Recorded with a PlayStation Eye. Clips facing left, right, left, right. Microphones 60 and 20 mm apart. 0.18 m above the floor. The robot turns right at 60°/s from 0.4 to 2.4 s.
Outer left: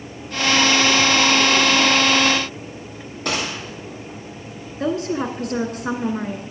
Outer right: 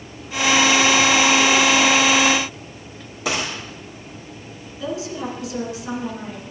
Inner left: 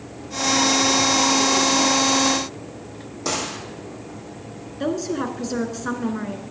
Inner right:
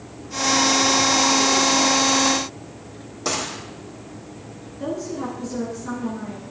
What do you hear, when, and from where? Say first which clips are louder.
3.2 s a gunshot: even, even; 5° right (ahead or behind), 4 m
4.8 s a woman speaking: outer left 5 dB, inner left 3 dB; 55° left (ahead or behind), 1.8 m